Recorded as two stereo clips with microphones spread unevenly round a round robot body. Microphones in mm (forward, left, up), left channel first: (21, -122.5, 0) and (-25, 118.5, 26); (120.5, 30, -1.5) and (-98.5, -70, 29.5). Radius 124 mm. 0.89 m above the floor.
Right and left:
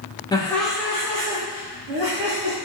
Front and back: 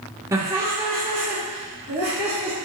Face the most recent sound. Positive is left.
turn(degrees=115)